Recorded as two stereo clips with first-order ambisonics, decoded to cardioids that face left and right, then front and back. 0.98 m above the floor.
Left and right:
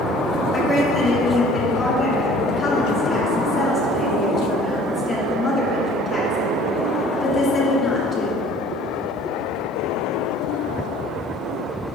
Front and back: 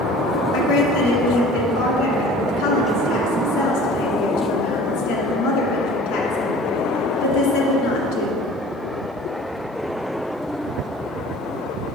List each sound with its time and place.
0.5 s a woman speaking: 15° left, 1.7 m